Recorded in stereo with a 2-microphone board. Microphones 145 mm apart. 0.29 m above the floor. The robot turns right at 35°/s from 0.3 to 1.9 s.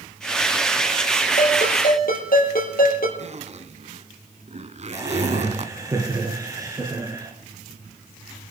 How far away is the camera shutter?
I don't hear a camera shutter.